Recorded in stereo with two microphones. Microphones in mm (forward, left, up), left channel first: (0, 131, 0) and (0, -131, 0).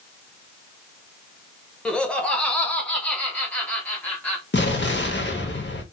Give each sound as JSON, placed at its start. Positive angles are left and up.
{"t": 1.9, "sound": "laughter", "side_deg": 5, "distance_m": 1.1}
{"t": 4.5, "sound": "an explosion", "side_deg": 45, "distance_m": 1.0}